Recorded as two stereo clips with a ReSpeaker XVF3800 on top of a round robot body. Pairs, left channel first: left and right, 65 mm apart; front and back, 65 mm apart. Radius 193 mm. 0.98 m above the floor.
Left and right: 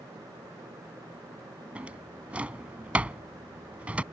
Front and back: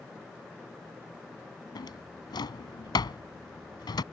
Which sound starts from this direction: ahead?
A drawer, at 1.8 s.